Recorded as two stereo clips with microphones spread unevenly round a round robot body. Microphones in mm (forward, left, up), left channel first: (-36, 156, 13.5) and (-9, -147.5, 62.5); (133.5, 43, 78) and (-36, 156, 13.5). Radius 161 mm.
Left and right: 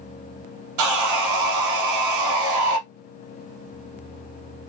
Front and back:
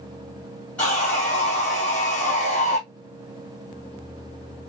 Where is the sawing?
115° right, 0.6 m.